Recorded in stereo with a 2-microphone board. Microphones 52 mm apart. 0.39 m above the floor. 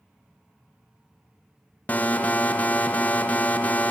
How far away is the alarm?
About 1.4 m.